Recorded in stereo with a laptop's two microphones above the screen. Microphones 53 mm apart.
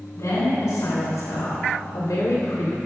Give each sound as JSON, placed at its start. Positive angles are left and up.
{"t": 0.1, "sound": "a woman speaking", "side_deg": 80, "distance_m": 3.5}